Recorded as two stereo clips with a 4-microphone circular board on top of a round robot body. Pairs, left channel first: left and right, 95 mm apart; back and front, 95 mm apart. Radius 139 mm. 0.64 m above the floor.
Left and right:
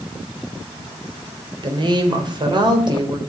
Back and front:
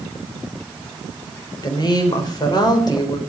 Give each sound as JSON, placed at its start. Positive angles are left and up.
{"t": 1.6, "sound": "a woman speaking", "azimuth_deg": -135, "distance_m": 4.0}